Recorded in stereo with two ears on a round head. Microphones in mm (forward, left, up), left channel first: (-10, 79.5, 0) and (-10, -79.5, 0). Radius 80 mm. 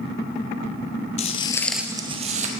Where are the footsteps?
40° left (ahead or behind), 1.2 m; by 2.5 s 45° right (ahead or behind), 1.4 m.